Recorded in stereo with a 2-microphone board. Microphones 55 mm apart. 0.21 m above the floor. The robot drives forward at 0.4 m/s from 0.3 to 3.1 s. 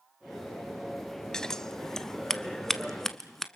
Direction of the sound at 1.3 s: 10° left (ahead or behind).